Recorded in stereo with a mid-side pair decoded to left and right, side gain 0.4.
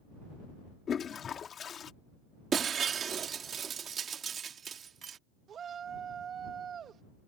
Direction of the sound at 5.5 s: 60° right.